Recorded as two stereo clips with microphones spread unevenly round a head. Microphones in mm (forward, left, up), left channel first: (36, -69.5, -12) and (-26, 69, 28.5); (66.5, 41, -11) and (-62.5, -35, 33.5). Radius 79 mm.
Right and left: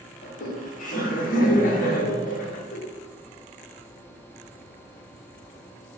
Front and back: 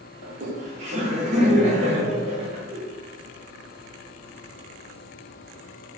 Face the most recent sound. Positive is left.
turn(degrees=-110)